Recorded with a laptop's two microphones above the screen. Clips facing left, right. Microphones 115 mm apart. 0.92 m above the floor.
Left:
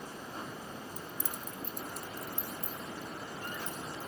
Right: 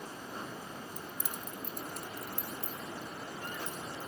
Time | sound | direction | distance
1.0 | keys jangling | 10° left (ahead or behind) | 0.7 m